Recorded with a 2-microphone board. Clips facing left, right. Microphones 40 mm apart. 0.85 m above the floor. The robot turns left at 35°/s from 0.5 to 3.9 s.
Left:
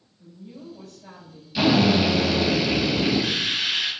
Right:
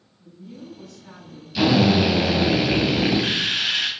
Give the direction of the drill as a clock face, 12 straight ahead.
12 o'clock.